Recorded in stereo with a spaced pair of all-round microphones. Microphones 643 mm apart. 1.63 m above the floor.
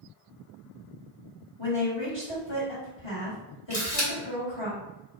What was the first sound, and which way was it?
A woman speaking, 40° left (ahead or behind).